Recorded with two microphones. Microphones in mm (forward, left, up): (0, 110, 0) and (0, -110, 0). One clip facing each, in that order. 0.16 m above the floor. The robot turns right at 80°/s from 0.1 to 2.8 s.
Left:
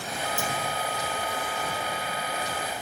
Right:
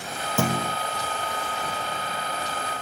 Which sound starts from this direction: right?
A clunk, at 0.4 s.